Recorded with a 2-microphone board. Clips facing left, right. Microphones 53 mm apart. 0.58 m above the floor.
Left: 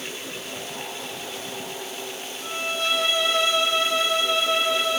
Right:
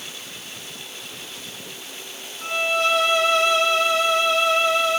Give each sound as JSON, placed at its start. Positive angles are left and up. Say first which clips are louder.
{"t": 2.4, "sound": "a violin", "louder": "right 6 dB", "side_deg": -60, "distance_m": 2.0}